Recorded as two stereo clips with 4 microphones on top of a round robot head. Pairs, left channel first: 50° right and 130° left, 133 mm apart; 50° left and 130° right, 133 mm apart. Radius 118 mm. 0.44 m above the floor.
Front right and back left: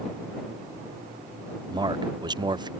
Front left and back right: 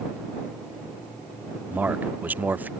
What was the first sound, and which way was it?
A man speaking, 160° left.